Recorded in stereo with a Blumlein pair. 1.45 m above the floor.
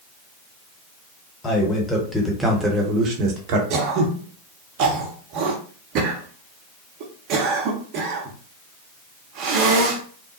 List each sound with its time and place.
1.4 s a man speaking: 20° left, 1.1 m; by 3.6 s 45° right, 1.0 m
3.7 s throat clearing: 40° right, 0.7 m